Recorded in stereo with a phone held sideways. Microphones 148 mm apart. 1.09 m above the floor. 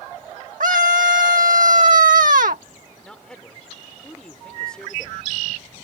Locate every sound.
0.6 s a scream: 70° right (ahead or behind)
3.0 s a man speaking: 5° left (ahead or behind)